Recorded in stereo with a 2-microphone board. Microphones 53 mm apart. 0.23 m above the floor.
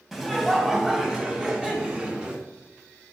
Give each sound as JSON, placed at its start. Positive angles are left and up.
{"t": 0.1, "sound": "laughter", "side_deg": -5, "distance_m": 1.6}